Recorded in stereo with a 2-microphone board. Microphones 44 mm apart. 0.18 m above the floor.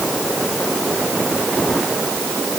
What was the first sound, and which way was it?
Only background noise.